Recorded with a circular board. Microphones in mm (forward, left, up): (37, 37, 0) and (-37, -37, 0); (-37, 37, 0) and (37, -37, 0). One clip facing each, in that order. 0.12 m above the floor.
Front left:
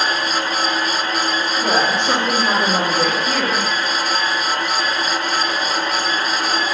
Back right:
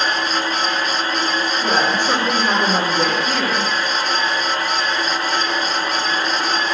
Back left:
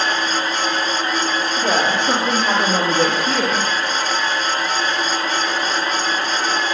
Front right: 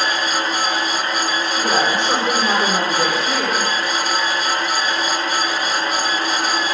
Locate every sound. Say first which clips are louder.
1.6 s a woman speaking: front left 1 dB, even; 115° left, 4.5 m; by 3.7 s 140° left, 3.5 m